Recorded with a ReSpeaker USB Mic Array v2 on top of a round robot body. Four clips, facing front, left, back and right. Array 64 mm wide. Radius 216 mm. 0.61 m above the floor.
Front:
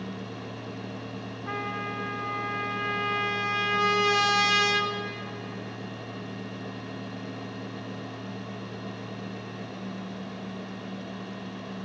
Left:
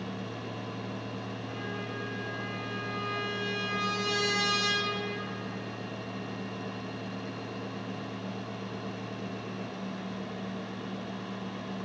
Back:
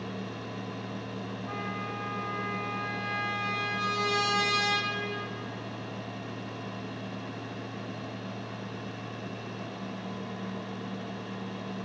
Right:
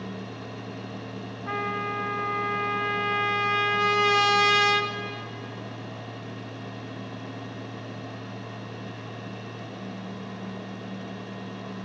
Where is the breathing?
I don't hear breathing.